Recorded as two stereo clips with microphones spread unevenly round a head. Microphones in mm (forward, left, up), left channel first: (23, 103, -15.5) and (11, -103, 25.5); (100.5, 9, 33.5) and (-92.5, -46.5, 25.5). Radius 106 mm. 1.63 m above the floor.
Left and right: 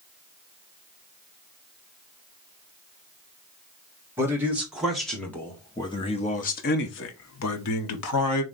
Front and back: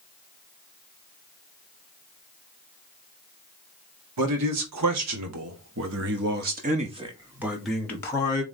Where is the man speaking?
170° right, 1.7 m; by 8.4 s 85° left, 1.2 m.